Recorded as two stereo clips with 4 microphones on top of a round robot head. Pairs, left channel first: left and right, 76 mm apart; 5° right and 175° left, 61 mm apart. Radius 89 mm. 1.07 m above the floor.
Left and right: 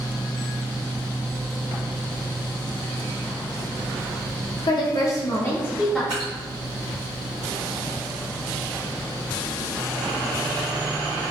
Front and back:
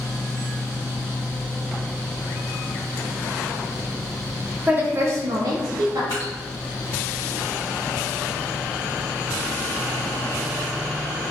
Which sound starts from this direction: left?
A woman speaking, at 4.7 s.